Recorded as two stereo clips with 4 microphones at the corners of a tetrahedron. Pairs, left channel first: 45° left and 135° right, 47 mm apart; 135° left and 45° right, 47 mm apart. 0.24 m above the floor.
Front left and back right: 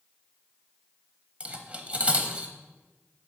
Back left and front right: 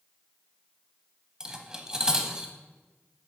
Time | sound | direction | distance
1.4 | cutlery clinking | 105° right | 0.7 m